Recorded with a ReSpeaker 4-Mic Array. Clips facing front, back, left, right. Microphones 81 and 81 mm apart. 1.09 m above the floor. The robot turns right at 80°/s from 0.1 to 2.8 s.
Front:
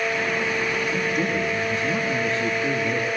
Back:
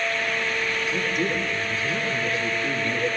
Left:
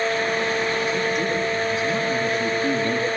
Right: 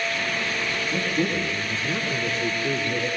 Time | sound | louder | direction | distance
0.9 | a man speaking | front 2 dB, left 2 dB | 55° right | 7.5 m